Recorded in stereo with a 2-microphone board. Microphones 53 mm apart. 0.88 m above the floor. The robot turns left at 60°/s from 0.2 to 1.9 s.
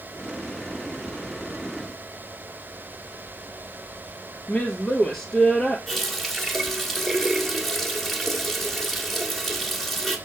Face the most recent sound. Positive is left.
turn(degrees=5)  # may be behind; listen again after turning